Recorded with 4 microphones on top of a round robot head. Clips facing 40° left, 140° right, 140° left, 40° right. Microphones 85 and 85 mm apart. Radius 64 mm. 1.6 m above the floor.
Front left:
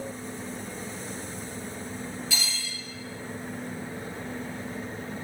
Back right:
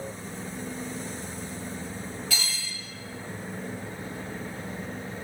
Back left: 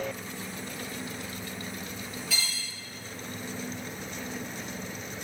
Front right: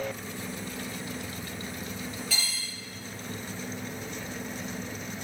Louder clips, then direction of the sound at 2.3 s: Even, even; 135° right.